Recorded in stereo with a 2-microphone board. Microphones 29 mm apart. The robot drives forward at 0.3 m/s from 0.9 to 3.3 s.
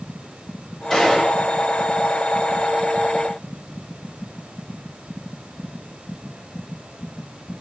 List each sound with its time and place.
0.9 s a gunshot: 5° left (ahead or behind), 3.5 m